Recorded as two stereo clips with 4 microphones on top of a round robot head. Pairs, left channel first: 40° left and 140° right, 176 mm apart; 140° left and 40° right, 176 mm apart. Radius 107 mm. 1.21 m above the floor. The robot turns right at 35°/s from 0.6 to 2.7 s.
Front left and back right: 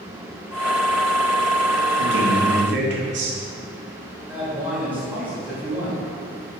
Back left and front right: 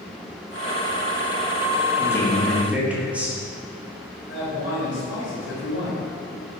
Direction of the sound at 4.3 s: 135° left.